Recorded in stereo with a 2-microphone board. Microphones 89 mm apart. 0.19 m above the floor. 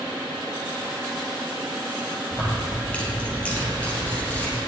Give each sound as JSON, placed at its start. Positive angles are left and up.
{"t": 2.3, "sound": "keys jangling", "side_deg": 15, "distance_m": 3.0}